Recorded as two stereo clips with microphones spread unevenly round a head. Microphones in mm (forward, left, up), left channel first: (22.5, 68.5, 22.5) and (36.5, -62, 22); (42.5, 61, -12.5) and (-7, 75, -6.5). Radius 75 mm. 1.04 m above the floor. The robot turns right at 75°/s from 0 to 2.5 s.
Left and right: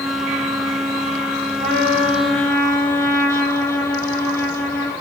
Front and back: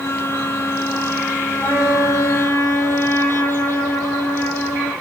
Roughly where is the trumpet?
Ahead right.